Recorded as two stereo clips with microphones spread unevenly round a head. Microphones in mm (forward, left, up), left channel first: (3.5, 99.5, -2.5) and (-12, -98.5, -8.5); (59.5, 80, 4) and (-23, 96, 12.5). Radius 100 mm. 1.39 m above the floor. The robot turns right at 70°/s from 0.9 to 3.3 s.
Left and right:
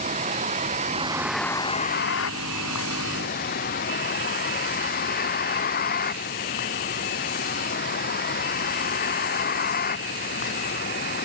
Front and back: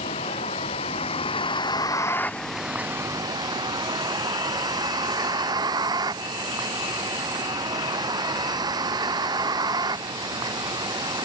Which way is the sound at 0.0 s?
35° right.